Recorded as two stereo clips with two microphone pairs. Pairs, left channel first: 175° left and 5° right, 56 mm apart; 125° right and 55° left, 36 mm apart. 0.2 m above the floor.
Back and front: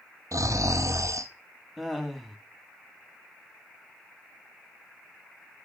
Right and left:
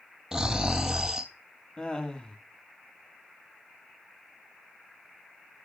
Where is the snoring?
20° right, 0.9 m.